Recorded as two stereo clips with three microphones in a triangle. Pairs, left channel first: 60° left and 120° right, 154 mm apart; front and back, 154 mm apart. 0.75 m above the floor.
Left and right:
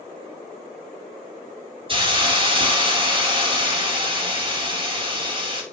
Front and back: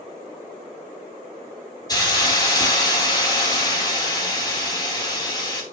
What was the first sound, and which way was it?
A hiss, 65° right.